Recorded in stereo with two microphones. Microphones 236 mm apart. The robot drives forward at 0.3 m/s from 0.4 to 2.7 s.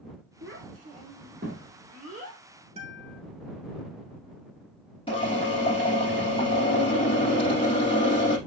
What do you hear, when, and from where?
0.4 s a child speaking: 55° right (ahead or behind), 1.3 m; by 2.4 s 40° right (ahead or behind), 1.5 m
2.8 s a guitar: 25° right (ahead or behind), 0.8 m
5.1 s a drill: 20° left (ahead or behind), 2.5 m